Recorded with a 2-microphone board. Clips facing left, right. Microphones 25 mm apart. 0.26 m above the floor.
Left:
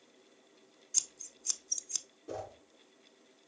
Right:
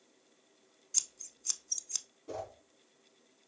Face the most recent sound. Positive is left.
turn(degrees=-10)  # may be behind; listen again after turning